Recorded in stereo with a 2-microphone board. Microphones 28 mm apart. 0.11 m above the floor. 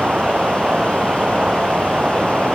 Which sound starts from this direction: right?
An insect, at 0.0 s.